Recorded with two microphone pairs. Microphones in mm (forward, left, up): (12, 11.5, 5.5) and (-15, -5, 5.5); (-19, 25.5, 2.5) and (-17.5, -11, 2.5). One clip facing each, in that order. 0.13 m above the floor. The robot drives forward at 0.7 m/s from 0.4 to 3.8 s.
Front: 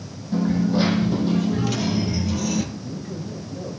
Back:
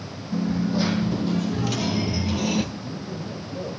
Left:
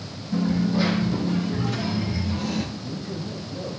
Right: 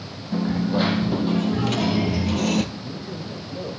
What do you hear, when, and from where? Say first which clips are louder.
0.3 s a dropped coin: front 3 dB, even; 35° right, 1.6 m; by 2.6 s 105° right, 1.0 m
2.8 s a man speaking: front 1 dB, left 1 dB; 155° right, 4 m; by 3.7 s 160° right, 5 m